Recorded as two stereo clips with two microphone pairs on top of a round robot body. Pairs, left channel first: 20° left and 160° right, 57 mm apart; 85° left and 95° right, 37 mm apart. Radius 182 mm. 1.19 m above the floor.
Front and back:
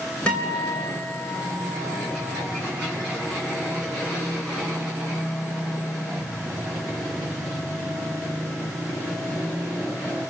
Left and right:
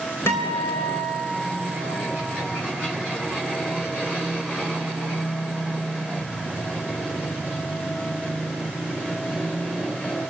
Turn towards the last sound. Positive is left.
turn(degrees=85)